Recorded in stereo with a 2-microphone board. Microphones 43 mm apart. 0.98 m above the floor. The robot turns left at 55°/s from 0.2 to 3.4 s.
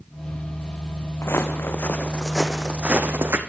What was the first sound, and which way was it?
Footsteps, 70° left (ahead or behind).